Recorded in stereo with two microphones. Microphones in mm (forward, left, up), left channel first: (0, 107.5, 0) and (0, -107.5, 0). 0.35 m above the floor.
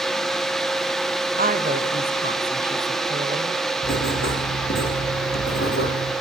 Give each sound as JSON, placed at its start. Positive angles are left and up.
{"t": 1.4, "sound": "a woman speaking", "side_deg": -40, "distance_m": 1.5}
{"t": 3.8, "sound": "writing", "side_deg": 70, "distance_m": 6.0}